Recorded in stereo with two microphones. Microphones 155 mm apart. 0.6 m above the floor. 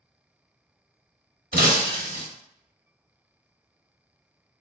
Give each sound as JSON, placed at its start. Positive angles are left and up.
{"t": 1.5, "sound": "breaking glass", "side_deg": -70, "distance_m": 0.7}